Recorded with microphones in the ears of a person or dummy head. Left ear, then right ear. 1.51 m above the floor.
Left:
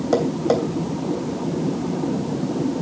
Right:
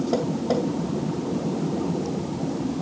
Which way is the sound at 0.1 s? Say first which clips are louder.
Left 7 dB; 60° left (ahead or behind).